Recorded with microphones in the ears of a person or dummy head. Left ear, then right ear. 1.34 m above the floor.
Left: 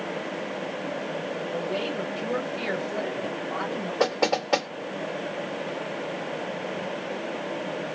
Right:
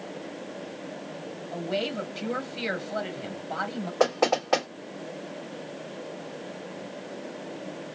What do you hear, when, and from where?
1.5 s a woman speaking: 35° right (ahead or behind), 1.7 m
4.0 s knocking: 10° right (ahead or behind), 2.5 m